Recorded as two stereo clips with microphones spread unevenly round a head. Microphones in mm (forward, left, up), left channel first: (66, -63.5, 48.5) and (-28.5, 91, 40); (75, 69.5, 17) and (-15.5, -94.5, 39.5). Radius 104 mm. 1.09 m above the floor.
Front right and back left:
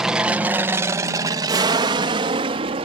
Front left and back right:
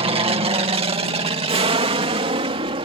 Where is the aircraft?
160° right; by 2.9 s straight behind.